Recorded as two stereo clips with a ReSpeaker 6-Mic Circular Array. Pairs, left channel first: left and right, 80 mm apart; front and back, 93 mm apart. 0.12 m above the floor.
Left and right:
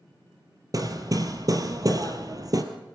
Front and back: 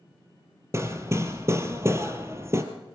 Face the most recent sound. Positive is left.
turn(degrees=-125)